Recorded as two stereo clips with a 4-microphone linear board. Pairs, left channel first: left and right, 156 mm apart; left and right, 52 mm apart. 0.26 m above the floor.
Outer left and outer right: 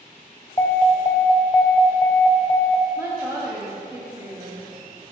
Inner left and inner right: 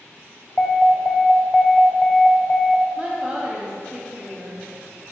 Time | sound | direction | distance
0.6 | an alarm | 25° left (ahead or behind) | 0.9 m
3.0 | a woman speaking | 20° right (ahead or behind) | 1.3 m